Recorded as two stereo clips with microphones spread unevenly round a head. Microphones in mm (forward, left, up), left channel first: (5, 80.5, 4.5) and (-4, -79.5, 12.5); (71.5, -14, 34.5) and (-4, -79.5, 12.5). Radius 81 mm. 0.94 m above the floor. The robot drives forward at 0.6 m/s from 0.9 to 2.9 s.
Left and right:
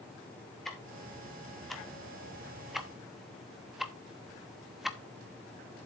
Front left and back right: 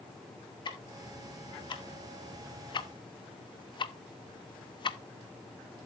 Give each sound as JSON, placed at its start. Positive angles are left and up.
{"t": 0.7, "sound": "ticking", "azimuth_deg": 0, "distance_m": 2.0}